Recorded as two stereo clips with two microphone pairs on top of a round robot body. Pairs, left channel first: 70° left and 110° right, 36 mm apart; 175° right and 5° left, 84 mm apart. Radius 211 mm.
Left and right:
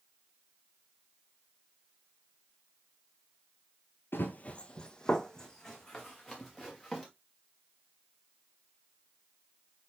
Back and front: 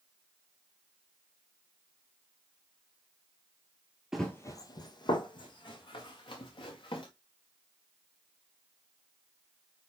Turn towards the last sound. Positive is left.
turn(degrees=155)